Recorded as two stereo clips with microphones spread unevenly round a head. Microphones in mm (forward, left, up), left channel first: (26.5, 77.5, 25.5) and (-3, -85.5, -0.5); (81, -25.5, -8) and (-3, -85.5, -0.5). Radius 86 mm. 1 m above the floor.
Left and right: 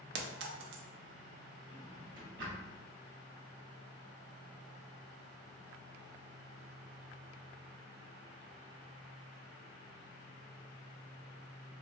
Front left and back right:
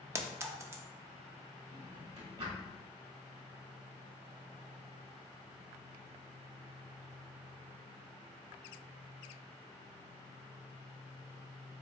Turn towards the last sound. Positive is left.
turn(degrees=-125)